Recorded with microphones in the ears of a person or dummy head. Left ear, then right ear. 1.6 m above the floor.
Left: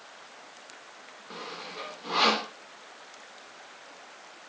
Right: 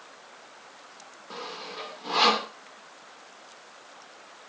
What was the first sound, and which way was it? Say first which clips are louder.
Sawing: right 2 dB; 15° right (ahead or behind).